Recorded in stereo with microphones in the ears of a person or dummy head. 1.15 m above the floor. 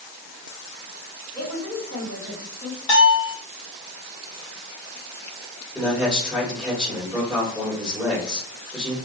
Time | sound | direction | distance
1.4 | a woman speaking | 5° left (ahead or behind) | 1.6 m
2.9 | a bell | 30° left (ahead or behind) | 1.4 m
5.8 | a man speaking | 5° right (ahead or behind) | 1.5 m